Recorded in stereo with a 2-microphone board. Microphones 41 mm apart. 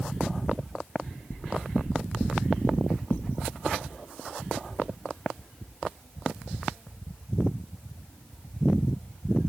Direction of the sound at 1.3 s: 70° left (ahead or behind).